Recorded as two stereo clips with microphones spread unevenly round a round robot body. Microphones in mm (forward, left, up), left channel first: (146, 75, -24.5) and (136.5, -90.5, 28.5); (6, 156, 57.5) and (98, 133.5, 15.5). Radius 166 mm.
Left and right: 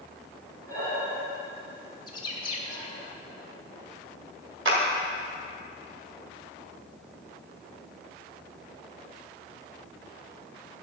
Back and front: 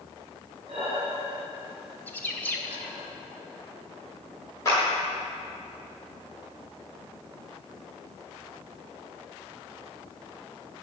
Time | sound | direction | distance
0.7 | breathing | 100° right | 3.5 m
2.1 | a bird | 70° left | 1.6 m
4.7 | a clap | 115° right | 1.9 m